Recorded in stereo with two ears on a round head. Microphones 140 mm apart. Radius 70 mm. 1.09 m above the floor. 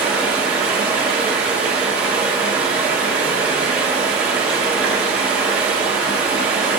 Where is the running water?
10° right (ahead or behind), 1.1 m.